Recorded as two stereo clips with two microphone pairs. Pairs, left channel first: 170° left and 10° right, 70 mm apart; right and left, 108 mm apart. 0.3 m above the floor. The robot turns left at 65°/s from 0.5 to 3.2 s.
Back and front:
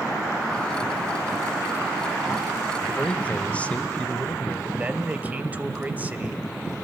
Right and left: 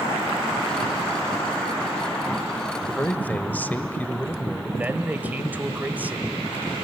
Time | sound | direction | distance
2.9 | a man speaking | 120° right | 0.9 m
4.8 | a man speaking | 35° left | 1.1 m